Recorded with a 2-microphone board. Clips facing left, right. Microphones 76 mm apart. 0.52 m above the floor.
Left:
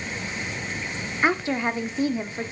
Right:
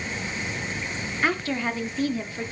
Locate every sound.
1.2 s a woman speaking: 25° left (ahead or behind), 0.8 m